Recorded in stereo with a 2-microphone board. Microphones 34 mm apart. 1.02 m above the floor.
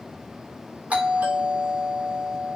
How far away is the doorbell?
About 3.5 m.